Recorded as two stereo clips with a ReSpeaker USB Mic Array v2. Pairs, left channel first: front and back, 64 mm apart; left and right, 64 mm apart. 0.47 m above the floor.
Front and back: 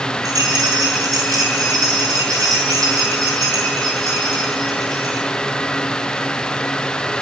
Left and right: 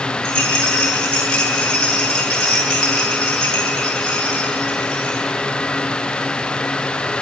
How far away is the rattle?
About 7.5 m.